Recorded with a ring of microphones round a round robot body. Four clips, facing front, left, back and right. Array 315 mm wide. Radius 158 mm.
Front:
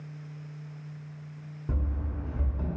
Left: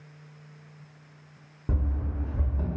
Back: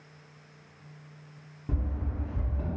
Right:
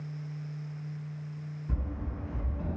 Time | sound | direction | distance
1.7 | running footsteps | 85° left | 1.1 m